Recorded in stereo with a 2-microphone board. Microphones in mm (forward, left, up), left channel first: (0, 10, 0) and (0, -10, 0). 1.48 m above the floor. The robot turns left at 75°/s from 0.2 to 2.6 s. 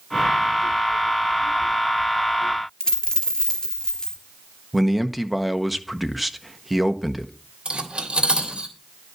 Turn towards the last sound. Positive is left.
turn(degrees=-70)  # may be behind; listen again after turning